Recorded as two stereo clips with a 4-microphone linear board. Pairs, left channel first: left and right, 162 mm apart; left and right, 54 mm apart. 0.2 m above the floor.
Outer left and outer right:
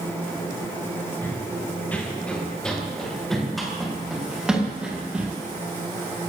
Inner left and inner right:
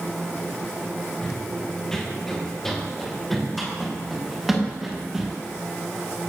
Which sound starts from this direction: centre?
Running footsteps, at 1.2 s.